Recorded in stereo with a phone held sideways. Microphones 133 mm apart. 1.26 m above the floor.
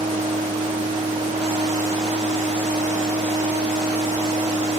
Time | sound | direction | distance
0.0 | a machine running | 55° right (ahead or behind) | ?